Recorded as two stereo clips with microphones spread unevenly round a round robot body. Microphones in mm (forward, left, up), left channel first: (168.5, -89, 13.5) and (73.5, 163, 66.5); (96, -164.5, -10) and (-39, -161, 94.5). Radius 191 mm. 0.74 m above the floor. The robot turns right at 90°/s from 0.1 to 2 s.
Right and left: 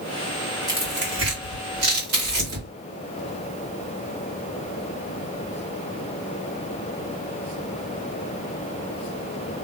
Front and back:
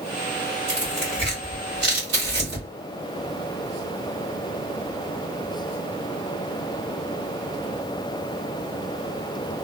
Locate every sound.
0.7 s tearing paper: 25° left, 1.7 m; by 2.7 s 145° left, 1.7 m